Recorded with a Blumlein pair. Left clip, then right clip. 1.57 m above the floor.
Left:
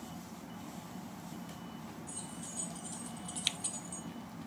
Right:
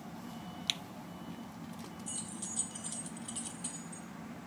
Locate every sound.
2.1 s keys jangling: 40° right, 2.5 m; by 4.0 s 35° left, 1.3 m